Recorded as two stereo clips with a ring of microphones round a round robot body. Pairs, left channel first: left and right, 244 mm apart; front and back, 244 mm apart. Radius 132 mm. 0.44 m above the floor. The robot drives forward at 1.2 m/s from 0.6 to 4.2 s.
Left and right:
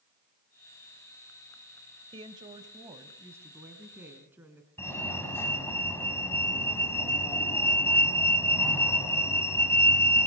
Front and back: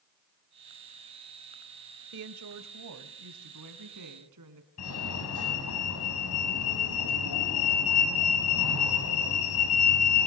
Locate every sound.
2.1 s a woman speaking: 160° right, 1.4 m; by 4.7 s 175° right, 3.5 m
4.8 s a fire alarm: 10° left, 5 m